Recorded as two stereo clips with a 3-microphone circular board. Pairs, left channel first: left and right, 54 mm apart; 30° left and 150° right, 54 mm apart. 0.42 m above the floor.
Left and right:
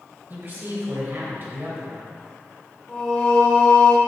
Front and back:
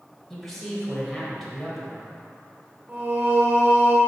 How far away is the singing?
About 1.3 m.